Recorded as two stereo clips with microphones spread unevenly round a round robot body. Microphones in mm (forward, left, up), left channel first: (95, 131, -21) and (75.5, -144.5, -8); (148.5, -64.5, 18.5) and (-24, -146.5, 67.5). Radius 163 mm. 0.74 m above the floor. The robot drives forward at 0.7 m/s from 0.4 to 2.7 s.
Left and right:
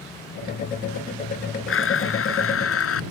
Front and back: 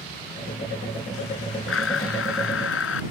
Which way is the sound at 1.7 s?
45° left.